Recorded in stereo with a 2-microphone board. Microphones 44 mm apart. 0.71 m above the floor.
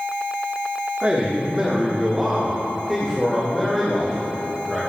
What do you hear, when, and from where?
1.0 s a man speaking: 35° right (ahead or behind), 1.5 m; by 4.8 s 10° left (ahead or behind), 3 m